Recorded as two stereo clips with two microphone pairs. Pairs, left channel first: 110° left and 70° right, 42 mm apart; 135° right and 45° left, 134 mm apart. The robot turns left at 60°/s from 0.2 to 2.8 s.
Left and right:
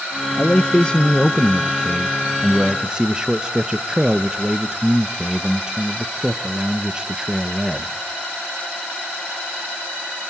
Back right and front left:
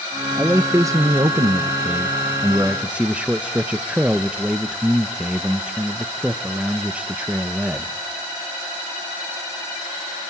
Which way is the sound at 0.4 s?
115° left.